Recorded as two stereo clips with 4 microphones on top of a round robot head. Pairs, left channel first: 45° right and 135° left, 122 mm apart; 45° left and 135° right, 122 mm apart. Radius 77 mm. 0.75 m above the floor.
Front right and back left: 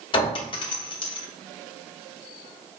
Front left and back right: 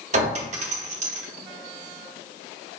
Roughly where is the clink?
Right.